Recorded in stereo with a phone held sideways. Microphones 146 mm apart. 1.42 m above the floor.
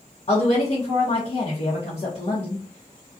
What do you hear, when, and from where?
0.3 s a woman speaking: 50° left (ahead or behind), 0.8 m